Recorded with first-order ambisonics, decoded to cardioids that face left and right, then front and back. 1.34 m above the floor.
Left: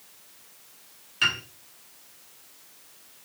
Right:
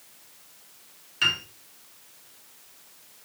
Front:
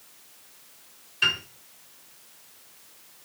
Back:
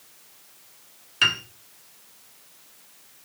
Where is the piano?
175° left, 2.5 m.